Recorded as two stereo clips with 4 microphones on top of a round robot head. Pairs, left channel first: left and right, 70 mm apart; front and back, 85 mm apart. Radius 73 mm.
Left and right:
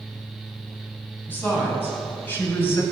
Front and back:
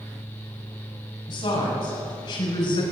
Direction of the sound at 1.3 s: 30° left.